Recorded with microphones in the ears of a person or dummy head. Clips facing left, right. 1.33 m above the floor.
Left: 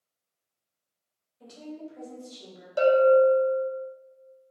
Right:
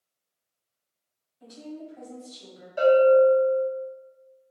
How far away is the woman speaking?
About 1.8 m.